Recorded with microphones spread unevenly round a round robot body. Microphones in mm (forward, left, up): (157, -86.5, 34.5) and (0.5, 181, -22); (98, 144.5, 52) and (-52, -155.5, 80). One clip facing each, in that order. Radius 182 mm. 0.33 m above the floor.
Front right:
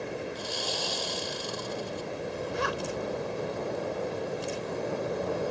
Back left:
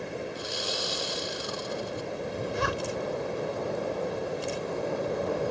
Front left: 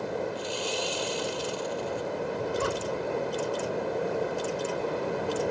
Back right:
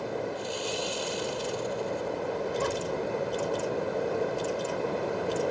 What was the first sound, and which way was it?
Sawing, 40° left.